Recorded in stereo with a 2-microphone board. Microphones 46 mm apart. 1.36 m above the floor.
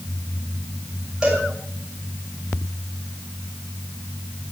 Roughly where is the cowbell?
Centre.